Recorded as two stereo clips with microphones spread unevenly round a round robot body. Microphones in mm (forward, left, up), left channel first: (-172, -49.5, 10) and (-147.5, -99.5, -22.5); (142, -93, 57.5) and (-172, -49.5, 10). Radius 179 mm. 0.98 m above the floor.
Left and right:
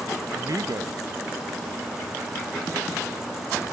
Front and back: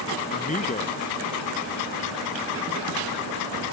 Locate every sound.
0.3 s a man speaking: 75° right